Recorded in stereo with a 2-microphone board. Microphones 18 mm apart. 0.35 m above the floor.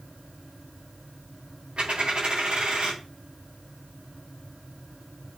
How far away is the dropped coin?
About 5 m.